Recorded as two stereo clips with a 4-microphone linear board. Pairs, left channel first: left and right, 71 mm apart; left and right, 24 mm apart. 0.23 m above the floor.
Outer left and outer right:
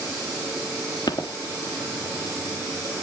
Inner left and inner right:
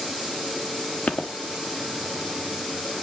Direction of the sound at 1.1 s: 80° left.